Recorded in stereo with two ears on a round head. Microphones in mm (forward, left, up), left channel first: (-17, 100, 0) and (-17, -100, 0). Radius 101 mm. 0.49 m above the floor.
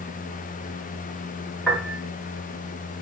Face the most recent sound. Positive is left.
turn(degrees=0)  # may be behind; listen again after turning